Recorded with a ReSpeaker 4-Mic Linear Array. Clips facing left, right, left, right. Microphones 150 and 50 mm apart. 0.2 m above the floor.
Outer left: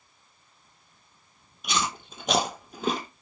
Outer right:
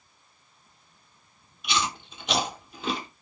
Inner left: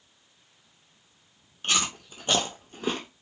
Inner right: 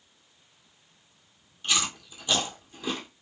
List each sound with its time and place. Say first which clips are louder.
1.6 s chewing: even, inner left 1 dB; 45° left (ahead or behind), 0.9 m